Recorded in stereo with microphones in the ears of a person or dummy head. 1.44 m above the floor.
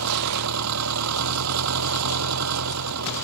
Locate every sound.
0.0 s an engine running: 90° right